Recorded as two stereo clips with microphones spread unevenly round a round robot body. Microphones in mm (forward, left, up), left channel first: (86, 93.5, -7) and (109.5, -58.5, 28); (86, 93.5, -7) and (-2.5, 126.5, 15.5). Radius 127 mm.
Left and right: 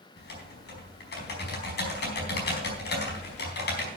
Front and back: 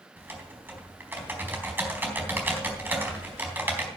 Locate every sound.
0.2 s typing on a keyboard: 90° left, 4 m